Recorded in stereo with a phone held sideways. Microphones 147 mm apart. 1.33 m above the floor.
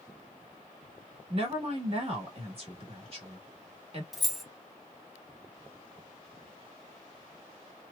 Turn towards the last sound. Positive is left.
turn(degrees=0)  # may be behind; listen again after turning